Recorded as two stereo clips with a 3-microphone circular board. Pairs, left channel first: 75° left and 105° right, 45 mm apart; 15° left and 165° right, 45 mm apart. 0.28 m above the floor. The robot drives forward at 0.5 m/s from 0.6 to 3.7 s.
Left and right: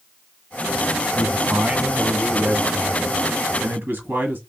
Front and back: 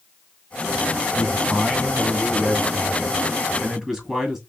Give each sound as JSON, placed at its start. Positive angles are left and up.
{"t": 1.1, "sound": "a man speaking", "azimuth_deg": -50, "distance_m": 2.5}